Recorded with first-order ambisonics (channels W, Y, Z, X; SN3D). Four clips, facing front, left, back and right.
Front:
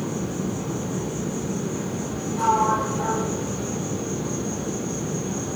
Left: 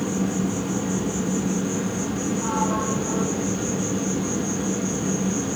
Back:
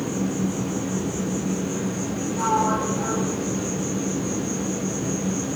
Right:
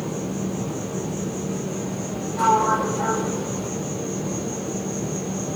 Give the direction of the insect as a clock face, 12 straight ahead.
8 o'clock.